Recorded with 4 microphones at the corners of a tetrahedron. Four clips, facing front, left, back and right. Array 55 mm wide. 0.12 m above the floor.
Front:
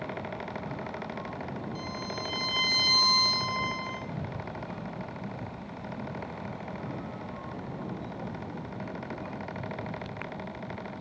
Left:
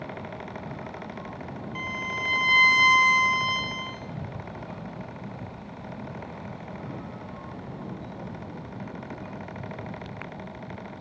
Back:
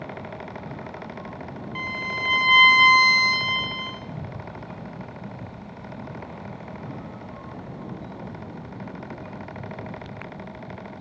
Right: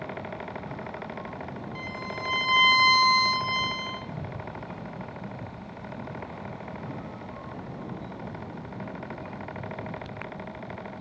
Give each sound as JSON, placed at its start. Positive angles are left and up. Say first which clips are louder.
{"t": 1.8, "sound": "a violin", "louder": "left 6 dB, back 8 dB", "azimuth_deg": 160, "distance_m": 6.0}